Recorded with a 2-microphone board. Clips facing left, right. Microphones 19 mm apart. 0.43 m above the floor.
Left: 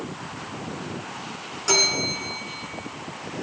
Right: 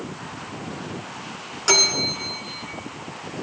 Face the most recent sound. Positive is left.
turn(degrees=-30)  # may be behind; listen again after turning